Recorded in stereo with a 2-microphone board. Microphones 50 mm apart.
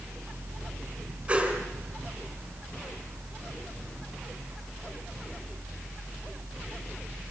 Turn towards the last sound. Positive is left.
turn(degrees=-35)  # may be behind; listen again after turning